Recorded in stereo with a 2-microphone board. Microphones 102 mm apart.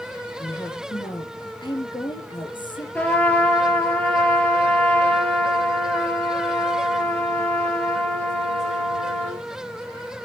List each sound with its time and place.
0.4 s a woman speaking: 50° left (ahead or behind), 5 m
3.0 s a trumpet: 15° left (ahead or behind), 3.5 m